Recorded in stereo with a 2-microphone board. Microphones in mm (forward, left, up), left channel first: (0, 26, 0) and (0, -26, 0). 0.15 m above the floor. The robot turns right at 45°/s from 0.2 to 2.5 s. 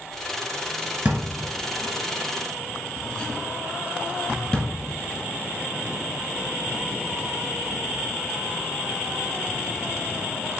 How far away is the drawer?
About 1.1 m.